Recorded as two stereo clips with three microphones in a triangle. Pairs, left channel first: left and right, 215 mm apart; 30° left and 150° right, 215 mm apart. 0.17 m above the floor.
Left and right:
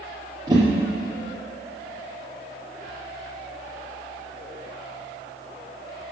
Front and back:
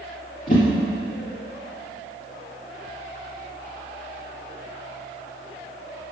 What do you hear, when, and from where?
0.5 s a whoosh: 20° right, 3 m